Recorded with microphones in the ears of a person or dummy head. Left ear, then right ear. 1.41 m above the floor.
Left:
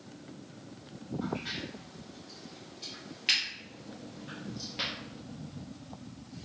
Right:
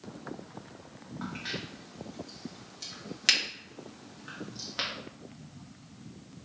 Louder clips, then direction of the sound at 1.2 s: Even; 50° right (ahead or behind).